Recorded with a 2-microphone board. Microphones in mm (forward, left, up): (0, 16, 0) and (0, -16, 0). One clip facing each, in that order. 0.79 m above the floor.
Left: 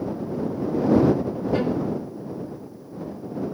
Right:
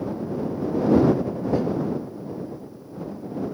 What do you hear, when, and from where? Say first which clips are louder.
1.5 s a violin: left 1 dB; 55° left (ahead or behind)